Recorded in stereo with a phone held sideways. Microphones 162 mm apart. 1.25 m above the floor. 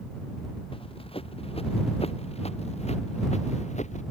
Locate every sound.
0.7 s running footsteps: 35° left (ahead or behind); by 4.0 s 45° left (ahead or behind)